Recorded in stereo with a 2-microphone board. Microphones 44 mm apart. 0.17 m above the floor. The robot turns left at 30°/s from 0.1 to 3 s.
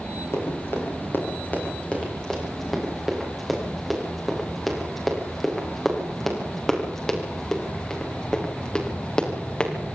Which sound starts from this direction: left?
Running footsteps, at 0.3 s.